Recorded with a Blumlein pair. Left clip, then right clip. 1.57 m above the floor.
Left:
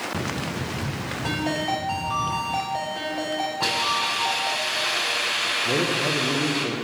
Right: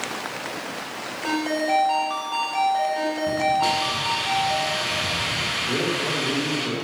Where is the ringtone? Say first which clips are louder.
Right 3 dB; straight ahead, 4 m.